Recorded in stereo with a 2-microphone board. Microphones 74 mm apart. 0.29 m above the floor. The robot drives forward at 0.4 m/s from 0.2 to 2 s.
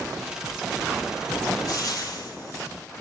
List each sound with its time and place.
1.7 s frying: 50° left (ahead or behind), 4.5 m